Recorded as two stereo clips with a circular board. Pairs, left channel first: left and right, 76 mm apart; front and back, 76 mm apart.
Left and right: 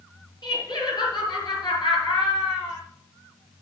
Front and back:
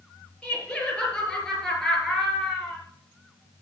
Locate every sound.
0.4 s laughter: 70° left, 5 m; by 2.8 s 90° left, 5 m